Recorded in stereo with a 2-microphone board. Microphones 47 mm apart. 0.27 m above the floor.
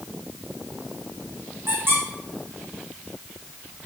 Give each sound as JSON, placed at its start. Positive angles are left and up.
{"t": 1.7, "sound": "a squeak", "side_deg": -55, "distance_m": 4.0}